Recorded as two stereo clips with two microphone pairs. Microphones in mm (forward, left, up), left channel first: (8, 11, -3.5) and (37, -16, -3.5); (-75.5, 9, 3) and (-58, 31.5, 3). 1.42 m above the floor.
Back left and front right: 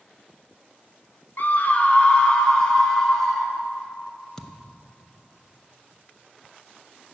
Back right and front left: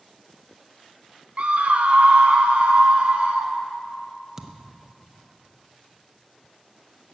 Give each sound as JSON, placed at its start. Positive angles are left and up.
{"t": 1.4, "sound": "a scream", "azimuth_deg": 100, "distance_m": 0.9}
{"t": 4.4, "sound": "a thud", "azimuth_deg": 90, "distance_m": 0.7}